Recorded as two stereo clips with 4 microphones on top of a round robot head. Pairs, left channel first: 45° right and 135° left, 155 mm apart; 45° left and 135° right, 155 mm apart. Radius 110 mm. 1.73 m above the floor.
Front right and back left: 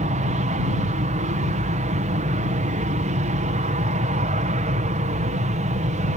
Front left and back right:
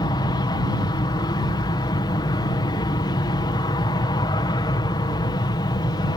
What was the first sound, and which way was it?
An aircraft, 105° left.